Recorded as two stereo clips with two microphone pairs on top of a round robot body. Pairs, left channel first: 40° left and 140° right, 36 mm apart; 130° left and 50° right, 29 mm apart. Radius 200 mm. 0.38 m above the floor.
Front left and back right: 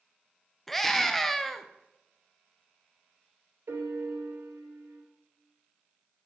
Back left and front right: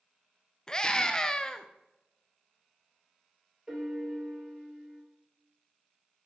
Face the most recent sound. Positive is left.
turn(degrees=-125)